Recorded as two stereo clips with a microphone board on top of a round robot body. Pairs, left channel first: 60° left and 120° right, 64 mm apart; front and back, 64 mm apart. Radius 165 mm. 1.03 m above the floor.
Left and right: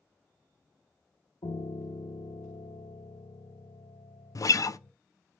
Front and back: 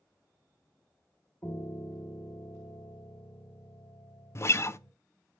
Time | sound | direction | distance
1.4 | a piano | 60° left | 0.9 m
4.3 | a guitar | 40° left | 0.7 m